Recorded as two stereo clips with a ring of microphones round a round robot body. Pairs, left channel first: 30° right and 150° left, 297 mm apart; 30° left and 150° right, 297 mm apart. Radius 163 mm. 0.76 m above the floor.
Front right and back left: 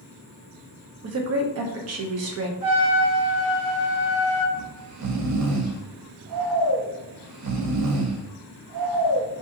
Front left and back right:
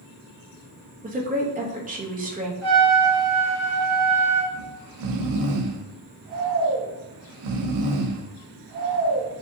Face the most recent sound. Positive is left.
turn(degrees=180)